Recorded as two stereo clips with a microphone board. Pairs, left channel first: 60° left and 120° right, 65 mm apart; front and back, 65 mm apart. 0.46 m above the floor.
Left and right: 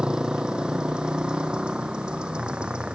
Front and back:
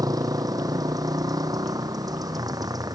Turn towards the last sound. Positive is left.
turn(degrees=165)